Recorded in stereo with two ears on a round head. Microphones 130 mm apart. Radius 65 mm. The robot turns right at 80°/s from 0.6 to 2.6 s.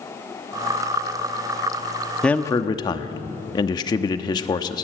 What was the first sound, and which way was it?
A man speaking, 5° left (ahead or behind).